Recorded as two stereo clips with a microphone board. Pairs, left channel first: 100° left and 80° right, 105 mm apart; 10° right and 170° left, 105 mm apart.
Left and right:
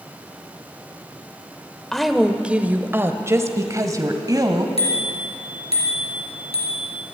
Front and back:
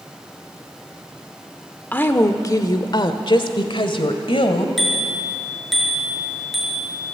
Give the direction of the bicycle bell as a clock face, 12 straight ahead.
9 o'clock.